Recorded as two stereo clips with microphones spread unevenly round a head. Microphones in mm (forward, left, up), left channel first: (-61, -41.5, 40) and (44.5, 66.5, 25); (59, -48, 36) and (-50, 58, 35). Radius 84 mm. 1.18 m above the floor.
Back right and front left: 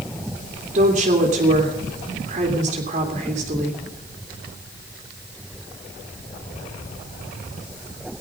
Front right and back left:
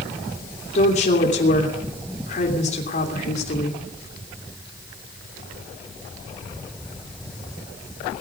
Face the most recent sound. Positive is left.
turn(degrees=-5)